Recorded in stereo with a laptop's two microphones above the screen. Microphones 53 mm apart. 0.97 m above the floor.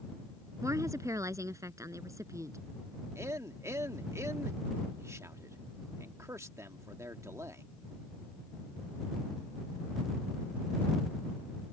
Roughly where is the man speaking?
Right.